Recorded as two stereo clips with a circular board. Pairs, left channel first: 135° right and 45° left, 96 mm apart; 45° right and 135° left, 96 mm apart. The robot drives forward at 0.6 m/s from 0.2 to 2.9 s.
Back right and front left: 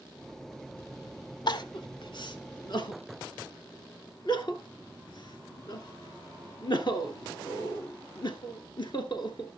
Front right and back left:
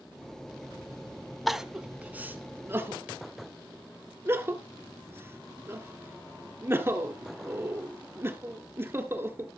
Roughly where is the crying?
Behind right.